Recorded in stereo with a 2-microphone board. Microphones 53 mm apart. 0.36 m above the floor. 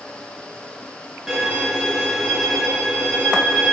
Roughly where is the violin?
Centre.